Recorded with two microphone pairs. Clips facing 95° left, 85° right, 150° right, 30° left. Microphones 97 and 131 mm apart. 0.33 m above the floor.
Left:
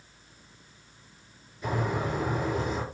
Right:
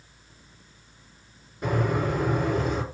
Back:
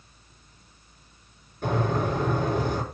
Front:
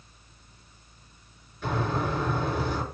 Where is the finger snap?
No finger snap in this recording.